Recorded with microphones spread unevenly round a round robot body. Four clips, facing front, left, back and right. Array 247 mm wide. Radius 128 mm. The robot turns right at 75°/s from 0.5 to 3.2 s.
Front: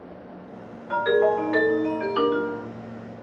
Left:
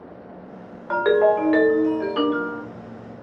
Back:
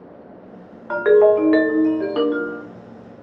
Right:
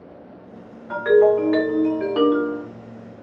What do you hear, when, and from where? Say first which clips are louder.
0.9 s a ringtone: right 2 dB, back 7 dB; 120° left, 0.8 m; by 2.6 s 105° right, 0.8 m